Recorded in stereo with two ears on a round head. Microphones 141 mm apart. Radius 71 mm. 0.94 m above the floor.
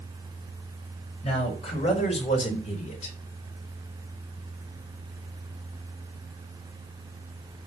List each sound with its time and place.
1.2 s a man speaking: 40° left (ahead or behind), 5.5 m; by 3.2 s 50° left (ahead or behind), 3 m